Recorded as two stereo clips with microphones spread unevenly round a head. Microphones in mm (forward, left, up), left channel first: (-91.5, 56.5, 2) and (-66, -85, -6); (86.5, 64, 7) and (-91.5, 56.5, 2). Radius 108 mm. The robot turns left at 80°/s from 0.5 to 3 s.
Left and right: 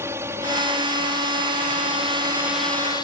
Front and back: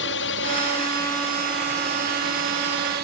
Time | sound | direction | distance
0.0 | a drone | straight ahead | ?